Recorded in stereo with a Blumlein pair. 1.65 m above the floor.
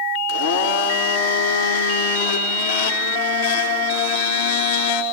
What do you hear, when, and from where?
0.3 s a blender: 55° left, 2.5 m